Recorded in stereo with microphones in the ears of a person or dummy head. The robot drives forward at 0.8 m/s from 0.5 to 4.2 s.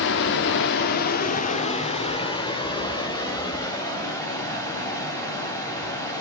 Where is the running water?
55° left (ahead or behind), 1.0 m; by 6.2 s 15° left (ahead or behind), 3 m.